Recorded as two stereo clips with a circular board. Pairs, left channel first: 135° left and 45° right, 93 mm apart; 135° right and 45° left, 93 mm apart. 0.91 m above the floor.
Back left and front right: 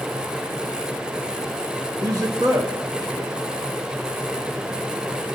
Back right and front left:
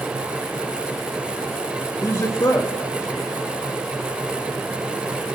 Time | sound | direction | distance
2.0 | a man speaking | 90° right | 2.5 m